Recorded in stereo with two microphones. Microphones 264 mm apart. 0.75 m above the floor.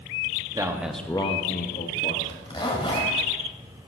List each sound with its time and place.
0.5 s a man speaking: 15° right (ahead or behind), 1.4 m; by 2.1 s 40° left (ahead or behind), 1.7 m
2.2 s a zipper: 20° left (ahead or behind), 1.9 m